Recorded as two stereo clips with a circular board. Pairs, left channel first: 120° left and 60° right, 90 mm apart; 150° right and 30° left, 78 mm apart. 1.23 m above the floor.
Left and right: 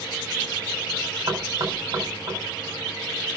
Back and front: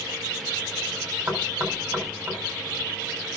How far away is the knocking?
About 4.5 m.